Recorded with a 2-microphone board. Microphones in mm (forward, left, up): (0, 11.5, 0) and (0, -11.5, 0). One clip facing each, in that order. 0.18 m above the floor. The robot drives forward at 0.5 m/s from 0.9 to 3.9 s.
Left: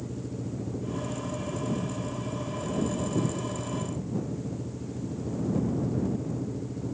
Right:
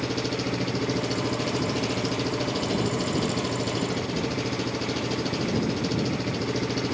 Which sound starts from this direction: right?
An engine running, at 0.0 s.